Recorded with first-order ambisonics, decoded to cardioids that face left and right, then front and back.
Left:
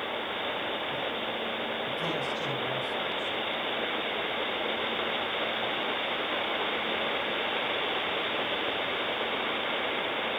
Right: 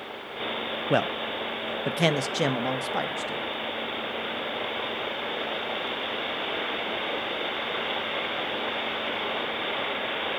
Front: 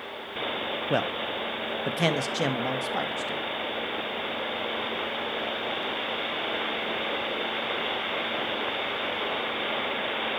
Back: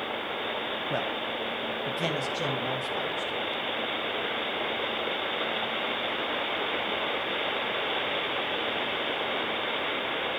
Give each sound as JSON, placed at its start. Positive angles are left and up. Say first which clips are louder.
{"t": 0.9, "sound": "a man speaking", "louder": "right 6 dB, front 5 dB", "azimuth_deg": -70, "distance_m": 0.9}